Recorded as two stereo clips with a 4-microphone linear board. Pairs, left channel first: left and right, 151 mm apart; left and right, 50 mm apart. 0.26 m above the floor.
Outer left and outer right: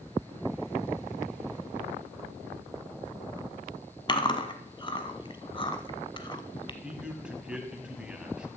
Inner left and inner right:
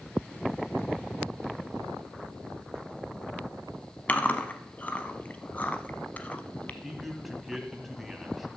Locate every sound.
4.1 s chewing: 30° left (ahead or behind), 0.9 m
6.8 s a man speaking: 5° right (ahead or behind), 1.7 m